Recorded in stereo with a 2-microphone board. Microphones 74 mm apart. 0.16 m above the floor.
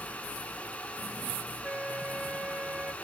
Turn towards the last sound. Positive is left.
turn(degrees=-15)  # may be behind; listen again after turning